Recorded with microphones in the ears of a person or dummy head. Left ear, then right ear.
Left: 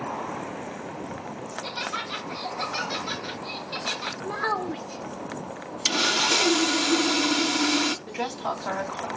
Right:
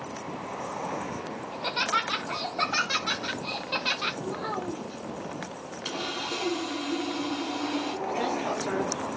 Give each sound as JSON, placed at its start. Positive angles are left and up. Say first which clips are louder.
{"t": 1.5, "sound": "laughter", "louder": "right 5 dB", "side_deg": -25, "distance_m": 0.6}
{"t": 4.2, "sound": "a child speaking", "louder": "left 5 dB", "side_deg": 50, "distance_m": 1.0}
{"t": 5.8, "sound": "sawing", "louder": "left 11 dB", "side_deg": 70, "distance_m": 0.6}
{"t": 8.1, "sound": "a woman speaking", "louder": "right 1 dB", "side_deg": 40, "distance_m": 2.5}